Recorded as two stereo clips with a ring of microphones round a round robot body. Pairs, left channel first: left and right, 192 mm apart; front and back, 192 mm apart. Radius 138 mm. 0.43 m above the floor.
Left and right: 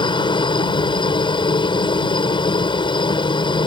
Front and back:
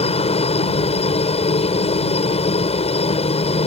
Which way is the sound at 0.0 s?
40° left.